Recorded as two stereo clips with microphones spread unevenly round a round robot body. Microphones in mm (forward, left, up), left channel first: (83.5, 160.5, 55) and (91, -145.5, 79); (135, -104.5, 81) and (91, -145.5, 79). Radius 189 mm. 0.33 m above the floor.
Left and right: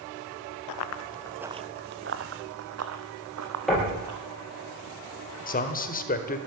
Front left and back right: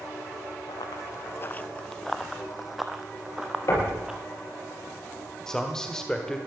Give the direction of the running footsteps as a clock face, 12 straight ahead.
10 o'clock.